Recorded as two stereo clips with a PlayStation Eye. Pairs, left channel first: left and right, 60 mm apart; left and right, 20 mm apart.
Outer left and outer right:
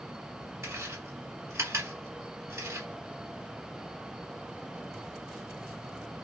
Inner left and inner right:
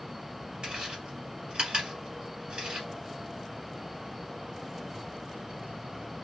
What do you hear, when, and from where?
0.6 s chewing: 50° right (ahead or behind), 1.7 m